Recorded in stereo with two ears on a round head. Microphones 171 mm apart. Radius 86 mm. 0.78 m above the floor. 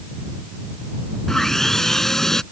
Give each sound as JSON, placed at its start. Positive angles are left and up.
{"t": 1.3, "sound": "sawing", "side_deg": 0}